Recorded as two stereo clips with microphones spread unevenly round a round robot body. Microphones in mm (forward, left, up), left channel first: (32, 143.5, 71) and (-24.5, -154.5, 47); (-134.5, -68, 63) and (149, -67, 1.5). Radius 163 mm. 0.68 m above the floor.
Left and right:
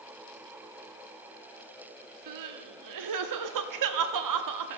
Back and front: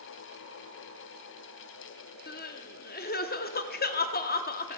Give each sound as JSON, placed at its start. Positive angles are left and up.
{"t": 2.3, "sound": "crying", "azimuth_deg": -115, "distance_m": 0.9}